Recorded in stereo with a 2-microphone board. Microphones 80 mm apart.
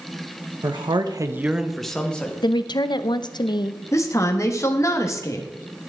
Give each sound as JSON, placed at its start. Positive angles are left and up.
{"t": 0.6, "sound": "a man speaking", "side_deg": -75, "distance_m": 1.0}
{"t": 2.4, "sound": "a woman speaking", "side_deg": 70, "distance_m": 0.6}
{"t": 3.9, "sound": "a woman speaking", "side_deg": 40, "distance_m": 1.3}